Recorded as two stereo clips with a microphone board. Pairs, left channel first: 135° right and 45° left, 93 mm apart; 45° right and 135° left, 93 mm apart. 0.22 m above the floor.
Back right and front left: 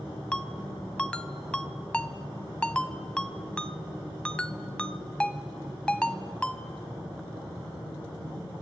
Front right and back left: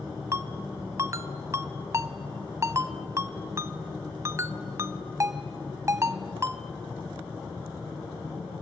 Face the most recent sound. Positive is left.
turn(degrees=150)